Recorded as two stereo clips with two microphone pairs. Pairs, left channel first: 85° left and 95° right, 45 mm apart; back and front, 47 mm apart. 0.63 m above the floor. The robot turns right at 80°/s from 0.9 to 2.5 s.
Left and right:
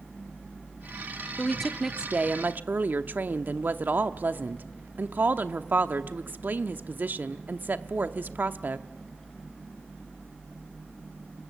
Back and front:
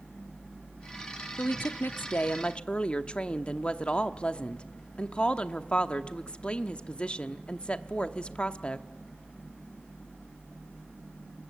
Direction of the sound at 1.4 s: 150° left.